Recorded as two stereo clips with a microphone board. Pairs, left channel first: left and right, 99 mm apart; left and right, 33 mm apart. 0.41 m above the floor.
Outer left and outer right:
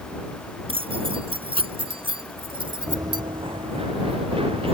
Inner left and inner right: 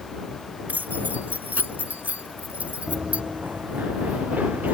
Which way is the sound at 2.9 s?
30° right (ahead or behind).